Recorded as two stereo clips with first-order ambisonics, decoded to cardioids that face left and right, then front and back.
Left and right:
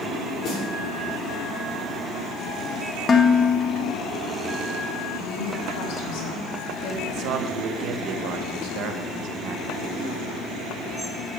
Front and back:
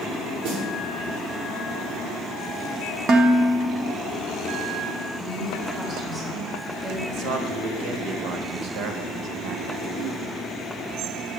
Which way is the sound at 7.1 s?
130° right.